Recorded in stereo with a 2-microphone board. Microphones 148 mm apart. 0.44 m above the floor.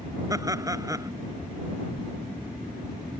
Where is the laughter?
20° right (ahead or behind).